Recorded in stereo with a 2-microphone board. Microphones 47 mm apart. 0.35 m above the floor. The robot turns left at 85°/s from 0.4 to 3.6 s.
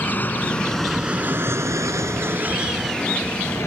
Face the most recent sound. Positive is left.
turn(degrees=65)  # may be behind; listen again after turning